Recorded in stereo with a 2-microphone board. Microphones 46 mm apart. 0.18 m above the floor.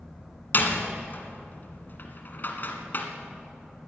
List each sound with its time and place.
0.5 s a door slam: 45° left (ahead or behind), 1.5 m